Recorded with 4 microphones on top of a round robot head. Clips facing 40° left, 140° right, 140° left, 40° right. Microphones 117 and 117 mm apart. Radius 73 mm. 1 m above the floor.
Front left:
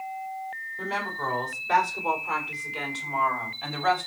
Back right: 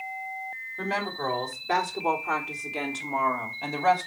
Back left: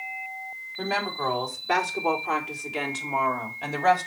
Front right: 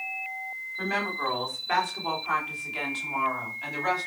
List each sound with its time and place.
0.8 s a woman speaking: 165° right, 4 m; by 4.1 s 170° left, 3 m